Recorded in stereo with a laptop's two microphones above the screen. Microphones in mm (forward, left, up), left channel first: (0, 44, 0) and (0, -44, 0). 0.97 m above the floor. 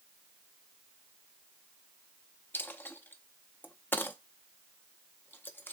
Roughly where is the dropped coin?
Left.